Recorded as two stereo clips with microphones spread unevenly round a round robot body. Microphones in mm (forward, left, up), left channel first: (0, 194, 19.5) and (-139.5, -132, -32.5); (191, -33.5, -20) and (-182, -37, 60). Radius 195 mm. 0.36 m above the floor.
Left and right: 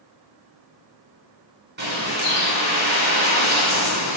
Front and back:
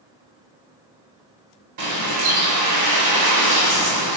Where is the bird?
175° right, 1.5 m.